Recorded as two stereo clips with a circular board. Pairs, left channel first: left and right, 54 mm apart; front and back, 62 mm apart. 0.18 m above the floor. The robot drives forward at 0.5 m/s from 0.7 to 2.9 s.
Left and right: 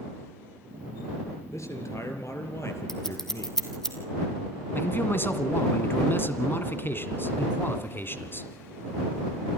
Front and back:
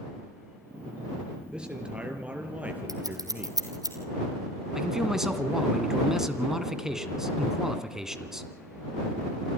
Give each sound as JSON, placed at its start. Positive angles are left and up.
{"t": 1.5, "sound": "a man speaking", "azimuth_deg": 105, "distance_m": 3.5}
{"t": 2.9, "sound": "scissors", "azimuth_deg": 170, "distance_m": 2.5}
{"t": 4.8, "sound": "a man speaking", "azimuth_deg": 100, "distance_m": 1.9}